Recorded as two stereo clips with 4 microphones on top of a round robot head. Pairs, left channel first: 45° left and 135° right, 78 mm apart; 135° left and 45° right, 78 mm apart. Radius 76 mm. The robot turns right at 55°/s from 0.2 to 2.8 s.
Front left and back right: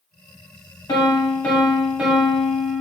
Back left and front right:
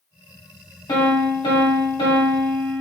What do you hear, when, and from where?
0.9 s a piano: 90° left, 0.9 m; by 2.8 s 165° right, 0.9 m